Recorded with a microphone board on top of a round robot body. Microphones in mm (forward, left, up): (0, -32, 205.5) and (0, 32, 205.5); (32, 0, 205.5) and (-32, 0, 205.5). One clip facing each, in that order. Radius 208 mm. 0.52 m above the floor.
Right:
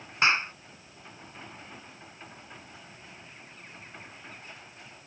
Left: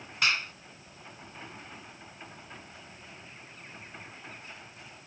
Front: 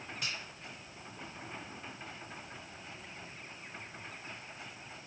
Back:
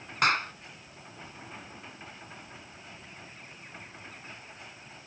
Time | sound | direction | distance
0.2 | a clap | 150° right | ?